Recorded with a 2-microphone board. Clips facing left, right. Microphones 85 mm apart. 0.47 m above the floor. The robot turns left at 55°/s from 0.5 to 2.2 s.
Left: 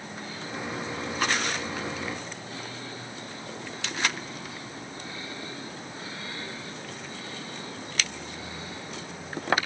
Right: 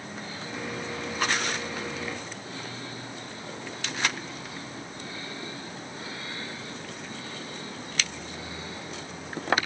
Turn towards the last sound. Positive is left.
No sound to turn to.